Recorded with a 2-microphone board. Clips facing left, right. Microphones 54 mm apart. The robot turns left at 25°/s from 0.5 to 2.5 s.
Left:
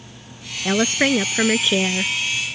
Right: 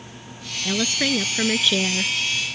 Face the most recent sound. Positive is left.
turn(degrees=10)